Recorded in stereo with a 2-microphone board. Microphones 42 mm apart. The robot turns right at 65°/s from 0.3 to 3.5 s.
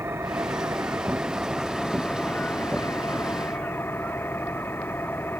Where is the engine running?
95° right; by 5.4 s 115° left.